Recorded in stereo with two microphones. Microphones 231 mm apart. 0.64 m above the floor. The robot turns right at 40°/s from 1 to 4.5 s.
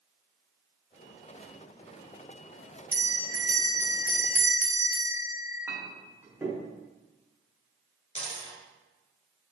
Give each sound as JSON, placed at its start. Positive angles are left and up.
{"t": 2.9, "sound": "a bell", "azimuth_deg": 115, "distance_m": 1.0}
{"t": 5.7, "sound": "a clink", "side_deg": -10, "distance_m": 0.8}
{"t": 8.2, "sound": "a dropped coin", "side_deg": 30, "distance_m": 1.1}